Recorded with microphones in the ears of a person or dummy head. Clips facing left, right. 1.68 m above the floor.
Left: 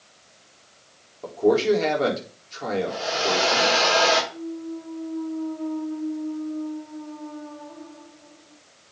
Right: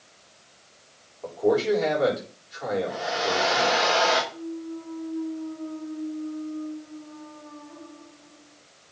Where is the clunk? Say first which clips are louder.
Left 2 dB; 65° left (ahead or behind), 2.5 m.